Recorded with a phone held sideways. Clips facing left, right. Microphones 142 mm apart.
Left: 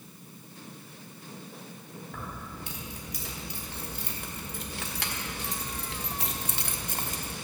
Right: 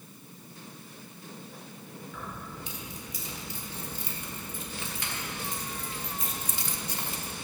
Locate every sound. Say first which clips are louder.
2.1 s keys jangling: left 1 dB; 55° left (ahead or behind), 3 m; by 7.3 s 35° left (ahead or behind), 0.9 m